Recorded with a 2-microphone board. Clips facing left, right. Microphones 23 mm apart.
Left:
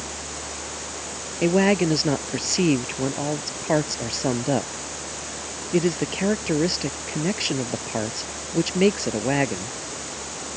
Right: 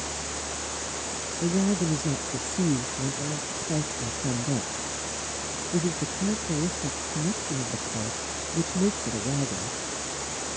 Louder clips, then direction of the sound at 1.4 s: Left 7 dB; 80° left.